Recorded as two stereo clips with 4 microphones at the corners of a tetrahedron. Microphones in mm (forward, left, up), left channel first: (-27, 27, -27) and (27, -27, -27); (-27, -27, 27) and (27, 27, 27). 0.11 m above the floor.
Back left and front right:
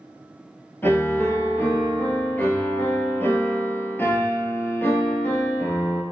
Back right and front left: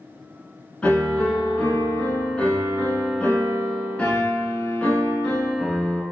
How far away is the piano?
About 0.9 m.